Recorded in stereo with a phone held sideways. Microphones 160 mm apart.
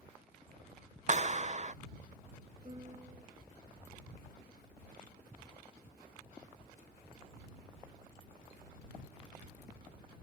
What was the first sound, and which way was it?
A clap, 50° right (ahead or behind).